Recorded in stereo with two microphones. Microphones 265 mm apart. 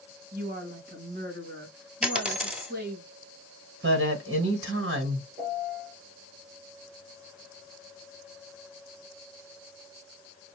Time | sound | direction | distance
0.3 | a woman speaking | 35° right (ahead or behind) | 2 m
2.0 | a dropped coin | 5° right (ahead or behind) | 0.9 m
3.8 | a woman speaking | 50° right (ahead or behind) | 1.7 m
5.4 | a piano | 35° right (ahead or behind) | 3 m